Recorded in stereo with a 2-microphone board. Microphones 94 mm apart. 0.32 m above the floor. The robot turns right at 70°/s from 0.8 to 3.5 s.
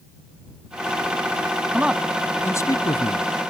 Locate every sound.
1.7 s a man speaking: 20° right (ahead or behind); by 3.3 s 65° left (ahead or behind)